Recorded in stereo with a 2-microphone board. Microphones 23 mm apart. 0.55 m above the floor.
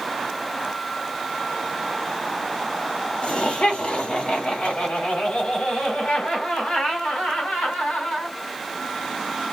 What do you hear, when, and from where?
3.2 s laughter: 55° left (ahead or behind), 1.4 m; by 8.3 s 70° left (ahead or behind), 4 m